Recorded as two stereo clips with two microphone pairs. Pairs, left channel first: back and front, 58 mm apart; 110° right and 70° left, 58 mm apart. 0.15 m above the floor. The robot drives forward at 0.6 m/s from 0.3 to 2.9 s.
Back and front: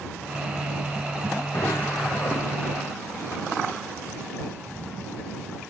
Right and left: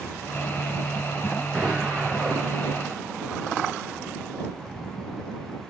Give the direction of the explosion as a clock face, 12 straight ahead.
7 o'clock.